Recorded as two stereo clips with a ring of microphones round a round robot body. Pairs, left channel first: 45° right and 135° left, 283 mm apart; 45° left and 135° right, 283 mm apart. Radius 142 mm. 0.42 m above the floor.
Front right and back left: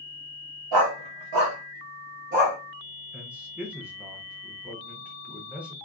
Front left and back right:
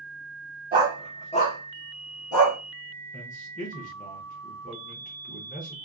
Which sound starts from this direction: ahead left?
A man speaking, at 3.1 s.